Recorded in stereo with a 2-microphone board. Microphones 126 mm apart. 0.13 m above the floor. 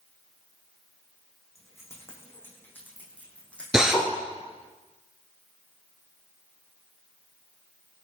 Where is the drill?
5° right (ahead or behind), 2.5 m.